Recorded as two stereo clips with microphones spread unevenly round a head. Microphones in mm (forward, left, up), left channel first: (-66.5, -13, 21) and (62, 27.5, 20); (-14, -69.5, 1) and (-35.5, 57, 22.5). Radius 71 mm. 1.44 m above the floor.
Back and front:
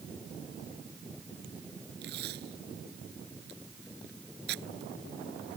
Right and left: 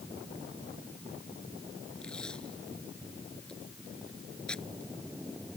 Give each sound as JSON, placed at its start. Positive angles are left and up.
{"t": 2.0, "sound": "tape being pulled", "azimuth_deg": 5}